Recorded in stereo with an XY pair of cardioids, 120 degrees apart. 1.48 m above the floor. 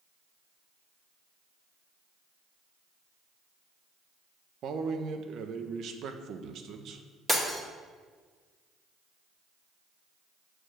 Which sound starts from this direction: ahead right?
A man speaking, at 4.6 s.